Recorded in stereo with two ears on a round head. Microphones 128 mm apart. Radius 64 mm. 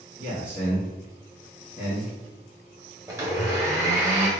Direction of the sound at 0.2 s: 30° right (ahead or behind).